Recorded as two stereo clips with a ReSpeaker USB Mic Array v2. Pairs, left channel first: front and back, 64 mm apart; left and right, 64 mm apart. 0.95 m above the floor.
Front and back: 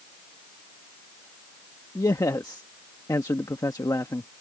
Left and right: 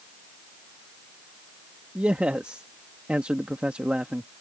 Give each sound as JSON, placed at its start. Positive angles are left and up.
{"t": 1.9, "sound": "a man speaking", "azimuth_deg": -20}